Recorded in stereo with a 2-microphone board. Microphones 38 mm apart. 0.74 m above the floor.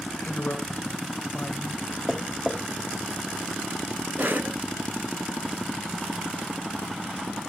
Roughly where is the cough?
Right.